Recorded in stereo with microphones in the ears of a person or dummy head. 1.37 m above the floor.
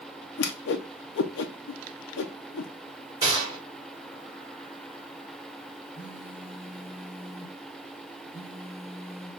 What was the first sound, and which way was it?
A whoosh, 70° left (ahead or behind).